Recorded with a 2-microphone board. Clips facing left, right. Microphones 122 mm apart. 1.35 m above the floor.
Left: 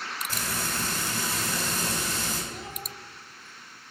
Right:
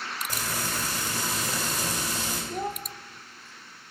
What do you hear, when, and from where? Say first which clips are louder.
0.3 s frying: even; 15° right (ahead or behind), 3.5 m
2.5 s a child speaking: right 8 dB; 45° right (ahead or behind), 0.7 m